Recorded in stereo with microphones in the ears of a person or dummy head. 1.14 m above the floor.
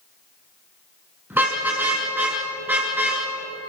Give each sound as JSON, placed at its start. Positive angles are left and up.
{"t": 1.3, "sound": "a car horn", "side_deg": -10, "distance_m": 5.5}